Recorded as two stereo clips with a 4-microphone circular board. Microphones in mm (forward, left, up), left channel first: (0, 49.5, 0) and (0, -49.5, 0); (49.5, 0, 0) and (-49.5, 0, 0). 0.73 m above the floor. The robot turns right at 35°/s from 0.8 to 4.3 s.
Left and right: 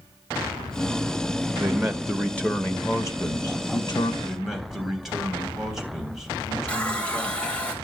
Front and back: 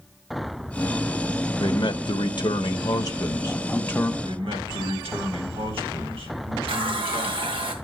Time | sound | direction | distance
1.6 | a man speaking | 15° right | 0.9 m
4.2 | a man speaking | straight behind | 3.5 m
6.7 | a running tap | 165° left | 2.5 m